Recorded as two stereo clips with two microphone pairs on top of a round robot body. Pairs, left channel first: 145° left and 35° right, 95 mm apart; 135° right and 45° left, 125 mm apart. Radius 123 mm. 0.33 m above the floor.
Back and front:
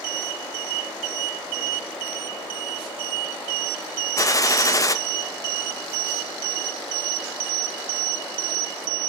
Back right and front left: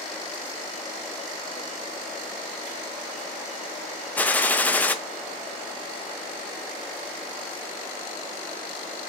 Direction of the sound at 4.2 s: 145° left.